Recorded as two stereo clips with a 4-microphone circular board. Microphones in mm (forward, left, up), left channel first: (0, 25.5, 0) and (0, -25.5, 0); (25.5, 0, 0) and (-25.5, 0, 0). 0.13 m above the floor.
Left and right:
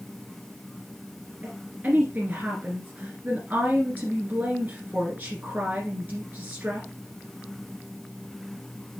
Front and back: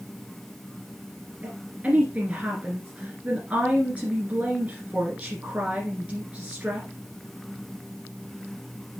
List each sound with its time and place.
1.4 s a woman speaking: 130° right, 2.0 m